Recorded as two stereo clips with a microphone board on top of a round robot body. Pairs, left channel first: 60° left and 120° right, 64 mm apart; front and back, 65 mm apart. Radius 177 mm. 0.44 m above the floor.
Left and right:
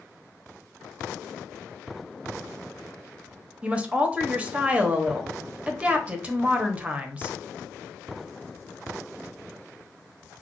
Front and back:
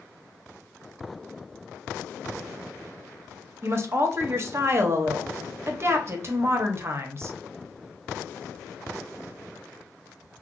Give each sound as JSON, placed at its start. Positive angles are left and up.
{"t": 3.6, "sound": "a woman speaking", "azimuth_deg": 180, "distance_m": 0.9}